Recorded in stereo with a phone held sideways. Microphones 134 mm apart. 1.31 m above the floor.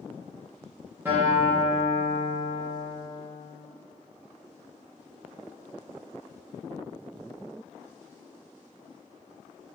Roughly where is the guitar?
Centre.